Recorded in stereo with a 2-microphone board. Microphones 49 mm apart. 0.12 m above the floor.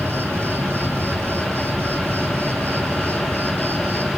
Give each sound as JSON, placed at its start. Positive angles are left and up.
{"t": 0.0, "sound": "an insect", "side_deg": -50, "distance_m": 2.0}